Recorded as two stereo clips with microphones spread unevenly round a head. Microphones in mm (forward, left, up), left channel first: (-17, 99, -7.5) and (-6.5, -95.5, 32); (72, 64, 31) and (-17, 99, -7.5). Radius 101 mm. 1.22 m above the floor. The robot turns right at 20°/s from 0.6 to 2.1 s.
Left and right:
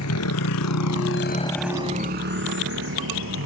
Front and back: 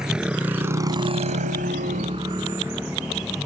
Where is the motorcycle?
70° left; by 3.5 s 110° right.